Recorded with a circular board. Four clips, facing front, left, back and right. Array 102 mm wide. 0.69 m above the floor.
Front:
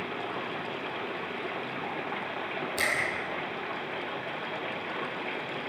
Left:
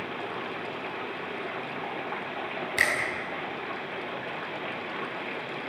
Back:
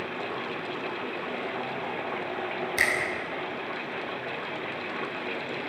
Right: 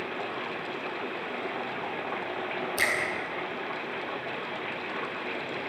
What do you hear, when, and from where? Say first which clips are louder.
2.8 s a finger snap: left 3 dB, back 3 dB; 125° left, 5.5 m